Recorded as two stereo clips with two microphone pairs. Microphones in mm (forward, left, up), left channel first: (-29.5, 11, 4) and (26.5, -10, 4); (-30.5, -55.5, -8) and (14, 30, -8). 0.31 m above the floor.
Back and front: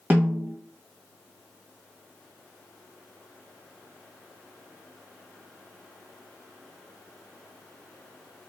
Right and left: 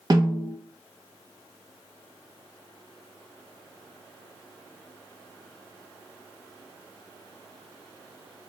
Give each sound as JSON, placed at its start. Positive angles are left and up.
{"t": 0.1, "sound": "a snare drum", "azimuth_deg": 30, "distance_m": 1.0}